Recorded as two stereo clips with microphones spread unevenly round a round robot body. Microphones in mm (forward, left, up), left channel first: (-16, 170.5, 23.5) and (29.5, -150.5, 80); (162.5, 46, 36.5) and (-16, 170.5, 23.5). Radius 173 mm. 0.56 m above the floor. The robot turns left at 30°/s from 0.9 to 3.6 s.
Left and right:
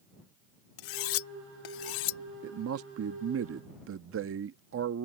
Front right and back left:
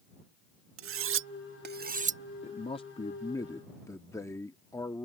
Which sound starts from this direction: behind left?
Cutlery clinking, at 0.8 s.